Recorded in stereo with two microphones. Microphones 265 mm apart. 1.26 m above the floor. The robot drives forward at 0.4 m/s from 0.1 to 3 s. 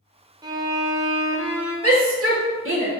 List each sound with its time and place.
0.4 s a violin: 15° right (ahead or behind), 0.6 m; by 1.7 s 10° right (ahead or behind), 1.2 m
1.8 s a shout: 60° right (ahead or behind), 1.3 m; by 2.9 s 45° right (ahead or behind), 1.5 m